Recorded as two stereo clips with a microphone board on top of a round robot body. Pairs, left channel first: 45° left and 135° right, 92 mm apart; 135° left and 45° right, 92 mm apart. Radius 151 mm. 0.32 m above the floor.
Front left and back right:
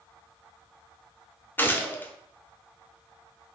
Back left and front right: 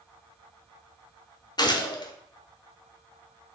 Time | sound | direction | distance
1.6 | a gunshot | 110° left | 1.0 m